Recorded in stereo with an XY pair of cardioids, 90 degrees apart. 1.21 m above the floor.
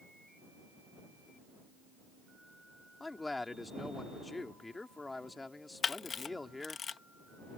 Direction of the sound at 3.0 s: 20° left.